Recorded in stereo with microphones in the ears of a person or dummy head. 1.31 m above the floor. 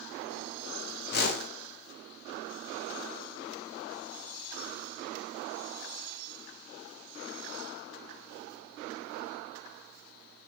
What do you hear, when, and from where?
1.1 s a whoosh: 60° left (ahead or behind), 1.3 m